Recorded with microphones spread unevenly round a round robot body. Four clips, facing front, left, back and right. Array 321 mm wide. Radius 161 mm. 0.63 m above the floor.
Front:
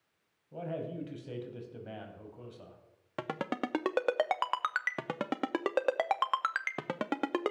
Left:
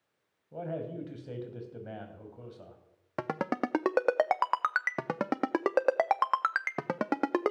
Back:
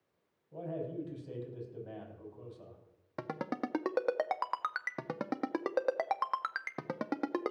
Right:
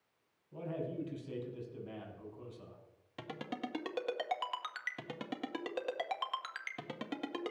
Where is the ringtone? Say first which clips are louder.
Left 11 dB, front 2 dB; 80° left, 0.6 m.